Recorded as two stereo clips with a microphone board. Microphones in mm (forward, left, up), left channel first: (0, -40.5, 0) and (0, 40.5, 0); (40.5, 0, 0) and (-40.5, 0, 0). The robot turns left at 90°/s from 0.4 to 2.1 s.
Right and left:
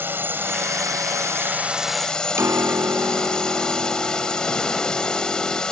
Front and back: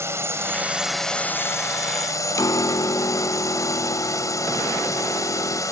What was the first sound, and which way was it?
A drone, 140° left.